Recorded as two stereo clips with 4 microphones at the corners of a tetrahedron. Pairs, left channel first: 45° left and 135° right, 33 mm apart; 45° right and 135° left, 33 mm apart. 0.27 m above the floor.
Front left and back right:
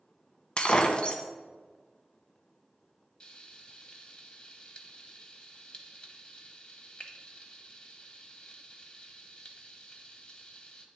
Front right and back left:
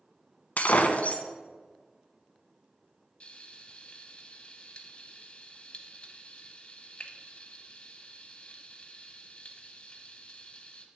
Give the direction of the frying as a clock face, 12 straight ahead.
12 o'clock.